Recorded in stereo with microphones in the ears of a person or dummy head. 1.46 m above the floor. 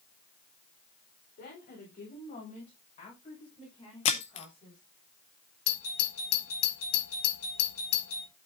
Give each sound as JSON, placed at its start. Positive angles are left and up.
{"t": 1.4, "sound": "a woman speaking", "side_deg": 35, "distance_m": 5.0}
{"t": 4.0, "sound": "breaking glass", "side_deg": 20, "distance_m": 0.6}
{"t": 5.7, "sound": "a doorbell", "side_deg": 80, "distance_m": 3.0}